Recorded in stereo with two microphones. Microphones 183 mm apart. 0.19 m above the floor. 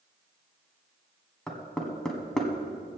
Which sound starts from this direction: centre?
Knocking, at 1.5 s.